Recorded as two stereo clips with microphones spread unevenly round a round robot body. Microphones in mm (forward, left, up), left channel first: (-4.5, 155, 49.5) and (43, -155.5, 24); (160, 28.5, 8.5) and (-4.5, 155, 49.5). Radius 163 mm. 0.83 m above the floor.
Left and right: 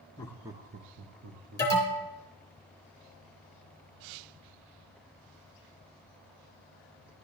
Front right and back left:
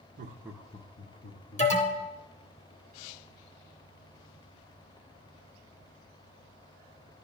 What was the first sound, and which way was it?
Laughter, 170° left.